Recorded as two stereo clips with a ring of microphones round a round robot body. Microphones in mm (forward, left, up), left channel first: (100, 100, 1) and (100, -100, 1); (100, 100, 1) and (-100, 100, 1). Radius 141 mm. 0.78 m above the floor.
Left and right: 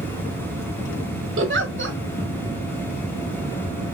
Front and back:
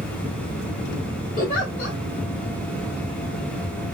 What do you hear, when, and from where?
1.4 s a giggle: 65° right, 1.1 m